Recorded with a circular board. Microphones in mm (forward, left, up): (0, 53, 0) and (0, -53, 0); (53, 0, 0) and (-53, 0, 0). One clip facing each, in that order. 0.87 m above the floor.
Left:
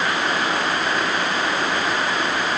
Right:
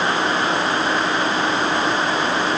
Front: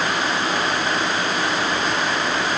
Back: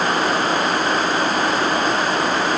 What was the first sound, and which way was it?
Only background noise.